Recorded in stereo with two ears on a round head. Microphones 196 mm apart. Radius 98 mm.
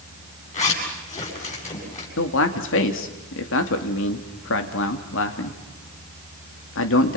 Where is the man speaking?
60° left (ahead or behind), 2.5 m.